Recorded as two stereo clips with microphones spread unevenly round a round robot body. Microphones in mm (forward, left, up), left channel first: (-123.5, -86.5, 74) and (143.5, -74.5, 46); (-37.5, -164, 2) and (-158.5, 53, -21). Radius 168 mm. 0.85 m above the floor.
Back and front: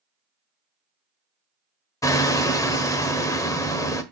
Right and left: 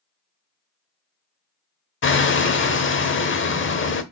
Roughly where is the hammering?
Right.